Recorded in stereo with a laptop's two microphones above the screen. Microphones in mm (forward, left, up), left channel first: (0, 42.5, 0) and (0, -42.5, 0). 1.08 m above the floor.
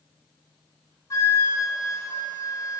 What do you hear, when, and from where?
1.1 s a flute: 45° left (ahead or behind), 1.8 m